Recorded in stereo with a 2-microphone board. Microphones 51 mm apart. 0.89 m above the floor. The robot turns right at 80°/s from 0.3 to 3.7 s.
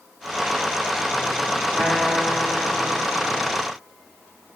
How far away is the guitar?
About 2.5 m.